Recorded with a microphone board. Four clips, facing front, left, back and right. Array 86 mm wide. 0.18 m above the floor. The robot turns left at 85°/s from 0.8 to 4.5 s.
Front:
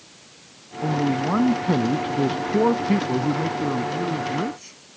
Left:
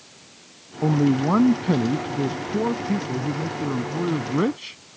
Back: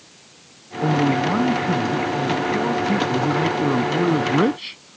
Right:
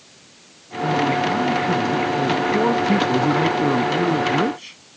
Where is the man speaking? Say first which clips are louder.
Even, back 4 dB; 125° left; by 5.0 s 170° left.